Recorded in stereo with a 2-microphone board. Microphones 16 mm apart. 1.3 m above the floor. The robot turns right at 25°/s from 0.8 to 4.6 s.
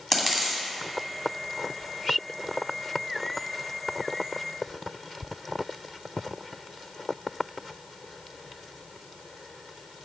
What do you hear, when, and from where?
0.1 s a dropped coin: 20° left (ahead or behind), 2.5 m